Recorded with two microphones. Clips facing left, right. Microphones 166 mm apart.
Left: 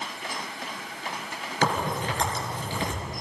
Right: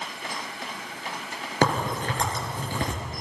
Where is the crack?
50° right (ahead or behind), 5.5 m.